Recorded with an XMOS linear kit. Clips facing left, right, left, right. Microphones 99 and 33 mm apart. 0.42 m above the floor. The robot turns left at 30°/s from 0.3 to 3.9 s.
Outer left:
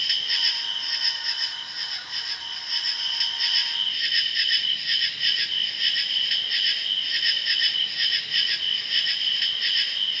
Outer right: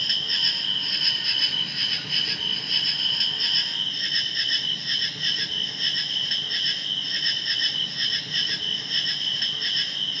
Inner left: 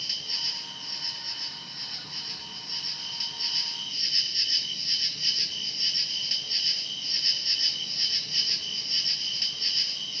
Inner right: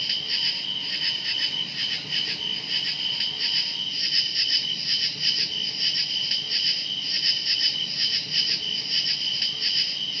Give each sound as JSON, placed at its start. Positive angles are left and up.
{"t": 0.0, "sound": "an insect", "azimuth_deg": -40, "distance_m": 1.0}